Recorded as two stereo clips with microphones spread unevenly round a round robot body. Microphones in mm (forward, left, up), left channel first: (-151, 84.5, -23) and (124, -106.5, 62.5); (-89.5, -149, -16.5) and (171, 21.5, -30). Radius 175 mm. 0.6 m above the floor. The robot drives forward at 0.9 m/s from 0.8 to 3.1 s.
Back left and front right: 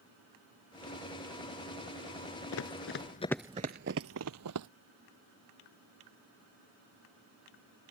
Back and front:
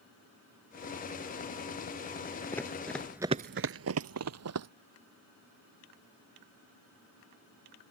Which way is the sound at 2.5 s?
150° left.